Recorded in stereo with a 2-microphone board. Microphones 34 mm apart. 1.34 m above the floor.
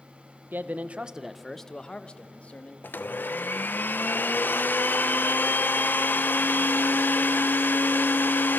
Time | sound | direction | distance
0.5 | a man speaking | 60° right (ahead or behind) | 1.2 m
2.8 | a blender | 65° left (ahead or behind) | 0.9 m